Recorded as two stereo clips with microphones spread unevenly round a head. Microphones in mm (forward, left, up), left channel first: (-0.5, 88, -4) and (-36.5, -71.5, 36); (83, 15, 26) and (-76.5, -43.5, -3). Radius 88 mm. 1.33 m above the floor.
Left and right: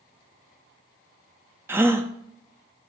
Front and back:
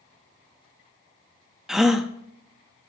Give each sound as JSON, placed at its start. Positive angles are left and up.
{"t": 1.7, "sound": "a gasp", "azimuth_deg": -60, "distance_m": 0.7}